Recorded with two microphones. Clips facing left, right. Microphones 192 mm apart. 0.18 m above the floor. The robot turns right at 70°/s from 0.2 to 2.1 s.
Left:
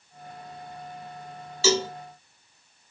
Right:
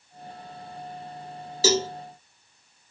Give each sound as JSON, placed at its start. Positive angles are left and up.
{"t": 1.6, "sound": "a cowbell", "side_deg": -40, "distance_m": 0.6}